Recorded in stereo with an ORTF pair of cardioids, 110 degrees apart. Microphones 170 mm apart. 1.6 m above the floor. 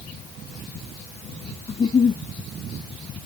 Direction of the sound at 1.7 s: 30° left.